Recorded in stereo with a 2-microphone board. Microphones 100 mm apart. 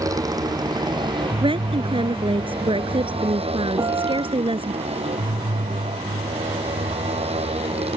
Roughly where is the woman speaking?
Right.